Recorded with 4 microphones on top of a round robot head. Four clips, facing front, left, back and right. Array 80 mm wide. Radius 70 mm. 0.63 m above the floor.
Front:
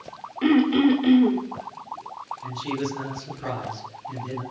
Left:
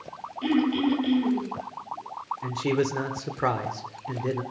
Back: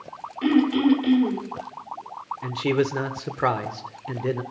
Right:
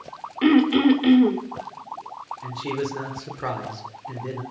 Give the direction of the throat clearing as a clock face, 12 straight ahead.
3 o'clock.